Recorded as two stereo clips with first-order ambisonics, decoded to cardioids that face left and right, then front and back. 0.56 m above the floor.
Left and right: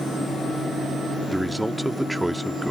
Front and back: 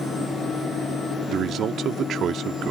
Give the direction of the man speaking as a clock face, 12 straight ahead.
6 o'clock.